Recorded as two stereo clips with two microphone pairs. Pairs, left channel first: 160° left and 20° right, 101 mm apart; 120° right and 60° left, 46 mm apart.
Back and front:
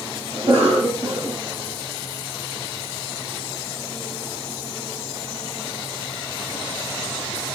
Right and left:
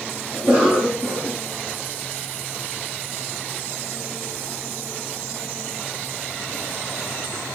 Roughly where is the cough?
Ahead right.